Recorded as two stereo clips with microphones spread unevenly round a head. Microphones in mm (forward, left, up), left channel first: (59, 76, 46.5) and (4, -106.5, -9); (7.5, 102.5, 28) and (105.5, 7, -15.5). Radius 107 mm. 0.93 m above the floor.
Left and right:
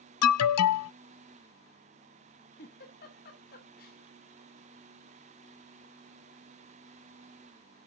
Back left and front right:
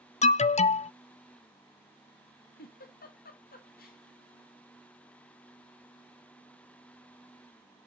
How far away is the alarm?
About 0.5 m.